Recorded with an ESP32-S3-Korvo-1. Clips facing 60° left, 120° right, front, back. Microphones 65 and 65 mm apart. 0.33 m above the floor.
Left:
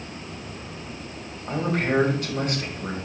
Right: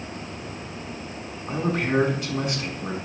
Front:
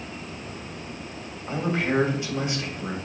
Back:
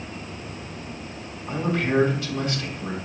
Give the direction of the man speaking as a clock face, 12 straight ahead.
10 o'clock.